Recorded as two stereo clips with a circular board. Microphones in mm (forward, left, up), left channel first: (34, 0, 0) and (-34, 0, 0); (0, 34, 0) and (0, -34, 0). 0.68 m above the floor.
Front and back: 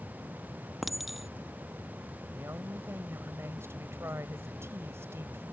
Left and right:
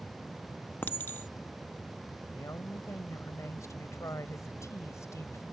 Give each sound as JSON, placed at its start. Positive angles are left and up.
{"t": 0.8, "sound": "a clink", "azimuth_deg": 95}
{"t": 2.3, "sound": "a woman speaking", "azimuth_deg": 130}